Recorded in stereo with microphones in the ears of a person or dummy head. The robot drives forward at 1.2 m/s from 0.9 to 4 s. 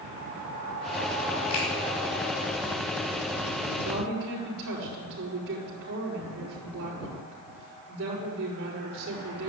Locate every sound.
1.5 s a finger snap: 35° left (ahead or behind), 5.5 m
3.8 s a woman speaking: 65° right (ahead or behind), 5.5 m; by 9.5 s 70° right (ahead or behind), 5.5 m